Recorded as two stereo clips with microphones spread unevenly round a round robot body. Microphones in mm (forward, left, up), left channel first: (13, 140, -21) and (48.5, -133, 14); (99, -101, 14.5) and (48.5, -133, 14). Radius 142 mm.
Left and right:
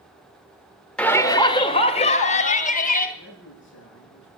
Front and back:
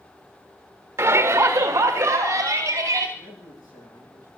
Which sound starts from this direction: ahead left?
A man speaking, at 3.2 s.